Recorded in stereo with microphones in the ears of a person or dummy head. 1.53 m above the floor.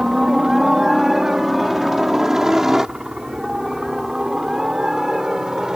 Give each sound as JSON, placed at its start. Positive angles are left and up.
{"t": 0.0, "sound": "a helicopter", "side_deg": -5}